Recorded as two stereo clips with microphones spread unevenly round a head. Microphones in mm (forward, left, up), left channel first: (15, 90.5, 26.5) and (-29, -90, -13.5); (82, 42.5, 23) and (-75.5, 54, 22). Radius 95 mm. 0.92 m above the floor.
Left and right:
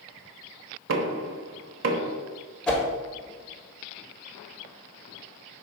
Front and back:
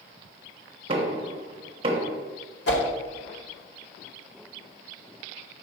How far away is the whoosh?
About 1.1 m.